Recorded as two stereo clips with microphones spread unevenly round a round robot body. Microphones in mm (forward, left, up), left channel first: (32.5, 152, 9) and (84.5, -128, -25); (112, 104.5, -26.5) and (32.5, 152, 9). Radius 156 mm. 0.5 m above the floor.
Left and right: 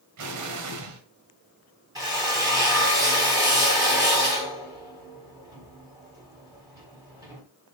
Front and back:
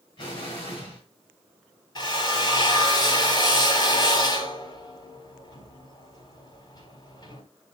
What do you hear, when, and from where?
0.2 s an explosion: 70° right, 2 m
1.9 s a drill: 5° right, 4 m